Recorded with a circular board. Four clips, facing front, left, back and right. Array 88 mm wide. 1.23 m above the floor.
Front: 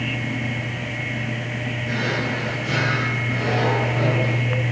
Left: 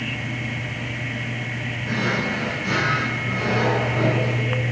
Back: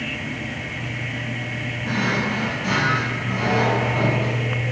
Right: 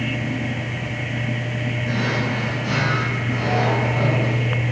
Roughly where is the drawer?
Behind.